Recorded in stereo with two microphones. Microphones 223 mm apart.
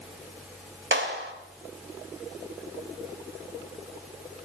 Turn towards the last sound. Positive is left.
turn(degrees=-65)  # may be behind; listen again after turning